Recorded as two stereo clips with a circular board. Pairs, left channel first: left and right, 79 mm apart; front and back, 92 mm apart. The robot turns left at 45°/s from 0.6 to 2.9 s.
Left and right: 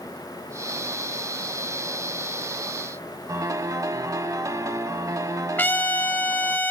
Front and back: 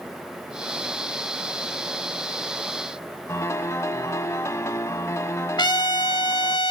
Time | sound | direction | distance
3.3 | a piano | 50° right | 0.8 m
5.6 | a trumpet | 30° left | 1.0 m